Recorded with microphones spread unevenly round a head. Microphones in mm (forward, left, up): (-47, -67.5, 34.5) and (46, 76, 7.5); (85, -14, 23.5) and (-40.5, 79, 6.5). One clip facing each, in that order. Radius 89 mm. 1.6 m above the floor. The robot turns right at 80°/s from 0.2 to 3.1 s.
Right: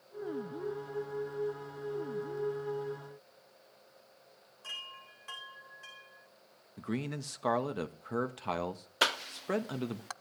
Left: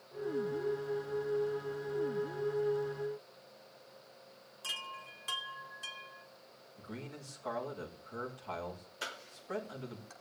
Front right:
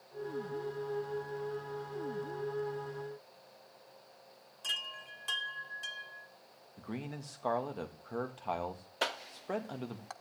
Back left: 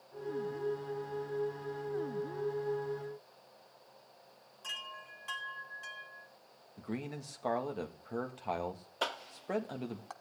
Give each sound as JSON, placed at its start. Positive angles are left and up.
{"t": 4.6, "sound": "a chime", "azimuth_deg": 10, "distance_m": 2.5}
{"t": 6.8, "sound": "a man speaking", "azimuth_deg": -130, "distance_m": 1.9}
{"t": 9.0, "sound": "a cough", "azimuth_deg": -120, "distance_m": 0.7}